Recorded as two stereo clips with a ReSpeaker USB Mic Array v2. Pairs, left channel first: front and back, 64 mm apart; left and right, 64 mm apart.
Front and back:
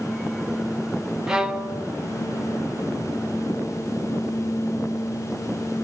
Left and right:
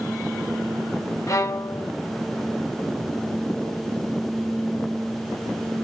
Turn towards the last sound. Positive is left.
turn(degrees=105)